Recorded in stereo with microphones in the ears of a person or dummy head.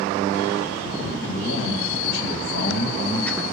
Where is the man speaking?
80° left, 3 m; by 3.4 s 10° right (ahead or behind), 0.6 m.